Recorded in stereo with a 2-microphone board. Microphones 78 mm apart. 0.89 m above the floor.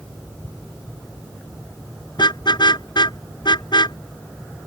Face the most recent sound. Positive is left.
turn(degrees=75)  # may be behind; listen again after turning